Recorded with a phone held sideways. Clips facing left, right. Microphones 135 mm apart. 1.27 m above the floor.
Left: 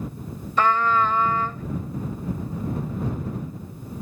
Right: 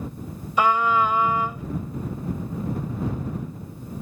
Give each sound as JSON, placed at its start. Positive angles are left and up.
{"t": 0.6, "sound": "a trumpet", "side_deg": -10}